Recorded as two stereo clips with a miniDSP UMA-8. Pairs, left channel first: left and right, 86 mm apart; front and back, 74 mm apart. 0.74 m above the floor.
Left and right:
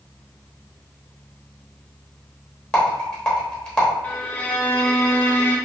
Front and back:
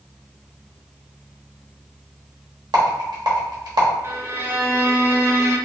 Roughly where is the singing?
No singing in this recording.